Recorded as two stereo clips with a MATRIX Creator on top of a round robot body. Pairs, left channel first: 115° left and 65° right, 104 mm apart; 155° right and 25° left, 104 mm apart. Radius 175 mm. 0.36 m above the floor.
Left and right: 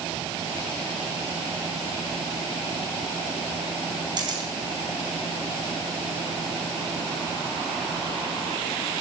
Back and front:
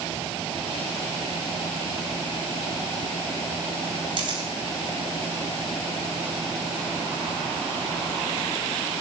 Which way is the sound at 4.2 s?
20° right.